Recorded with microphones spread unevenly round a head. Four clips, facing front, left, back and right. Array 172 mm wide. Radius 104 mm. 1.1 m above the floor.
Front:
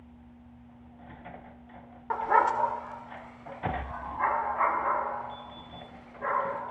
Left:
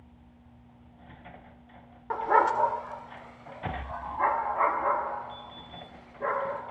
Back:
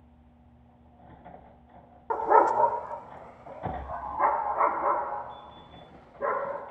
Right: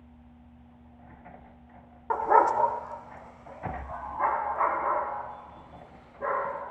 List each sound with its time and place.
2.1 s a dog barking: 140° right, 0.7 m; by 6.6 s 170° left, 5 m